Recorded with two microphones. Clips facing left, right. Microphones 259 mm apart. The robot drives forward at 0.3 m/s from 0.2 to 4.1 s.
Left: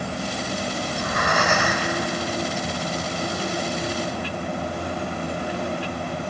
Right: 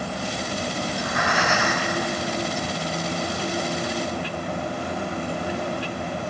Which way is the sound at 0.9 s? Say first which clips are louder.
Left 1 dB; 60° left (ahead or behind).